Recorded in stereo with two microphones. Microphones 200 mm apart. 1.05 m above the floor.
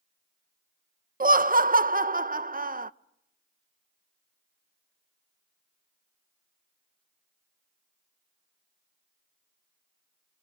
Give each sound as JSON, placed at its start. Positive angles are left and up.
{"t": 1.2, "sound": "laughter", "side_deg": -50, "distance_m": 0.5}